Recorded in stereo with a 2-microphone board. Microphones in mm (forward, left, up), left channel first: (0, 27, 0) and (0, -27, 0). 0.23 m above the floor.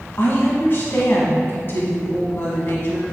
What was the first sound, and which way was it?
A woman speaking, 45° left (ahead or behind).